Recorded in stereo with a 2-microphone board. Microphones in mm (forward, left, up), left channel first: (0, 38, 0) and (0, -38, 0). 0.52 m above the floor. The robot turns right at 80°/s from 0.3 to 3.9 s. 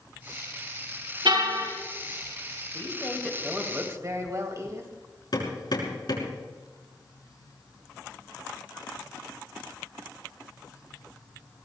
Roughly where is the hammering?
Left.